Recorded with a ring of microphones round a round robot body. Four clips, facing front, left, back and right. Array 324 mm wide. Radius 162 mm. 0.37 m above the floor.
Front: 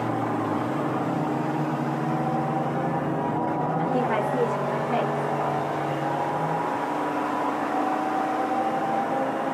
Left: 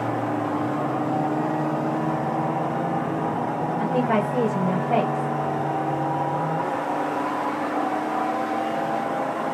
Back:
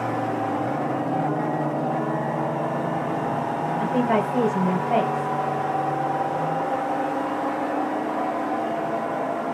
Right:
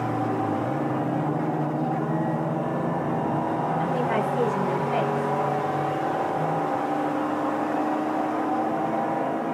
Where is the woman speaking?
135° left, 2.0 m.